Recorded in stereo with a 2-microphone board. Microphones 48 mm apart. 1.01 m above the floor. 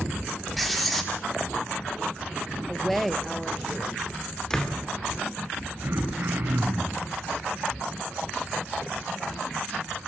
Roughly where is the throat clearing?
Right.